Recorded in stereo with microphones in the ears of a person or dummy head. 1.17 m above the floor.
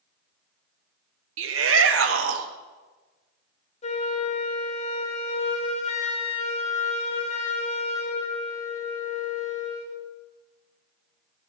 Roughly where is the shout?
Right.